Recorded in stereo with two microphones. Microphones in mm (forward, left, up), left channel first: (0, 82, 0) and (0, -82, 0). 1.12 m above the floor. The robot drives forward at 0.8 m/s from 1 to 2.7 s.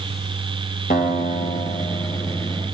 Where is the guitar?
65° left (ahead or behind), 1.7 m; by 2.6 s 50° left (ahead or behind), 1.9 m.